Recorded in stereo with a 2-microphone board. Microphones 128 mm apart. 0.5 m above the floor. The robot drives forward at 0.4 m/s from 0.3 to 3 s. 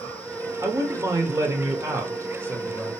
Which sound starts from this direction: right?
A man speaking, at 0.6 s.